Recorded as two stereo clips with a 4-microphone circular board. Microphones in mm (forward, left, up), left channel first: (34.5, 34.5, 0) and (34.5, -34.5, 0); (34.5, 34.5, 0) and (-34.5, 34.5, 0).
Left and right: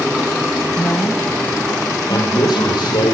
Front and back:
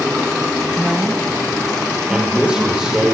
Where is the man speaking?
100° left, 5.5 m.